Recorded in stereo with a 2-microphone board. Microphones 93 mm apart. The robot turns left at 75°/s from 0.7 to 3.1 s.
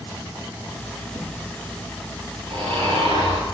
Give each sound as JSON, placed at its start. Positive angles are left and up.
{"t": 1.1, "sound": "a thud", "side_deg": 55, "distance_m": 9.0}
{"t": 2.5, "sound": "snoring", "azimuth_deg": -60, "distance_m": 9.0}